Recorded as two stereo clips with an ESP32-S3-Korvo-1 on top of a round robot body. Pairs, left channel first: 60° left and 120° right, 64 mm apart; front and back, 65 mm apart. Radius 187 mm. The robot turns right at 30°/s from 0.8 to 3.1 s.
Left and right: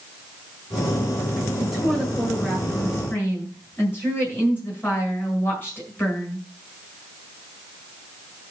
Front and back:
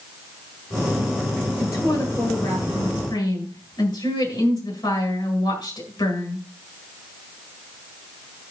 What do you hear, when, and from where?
1.6 s a woman speaking: 45° right, 8.5 m; by 6.4 s straight ahead, 8.5 m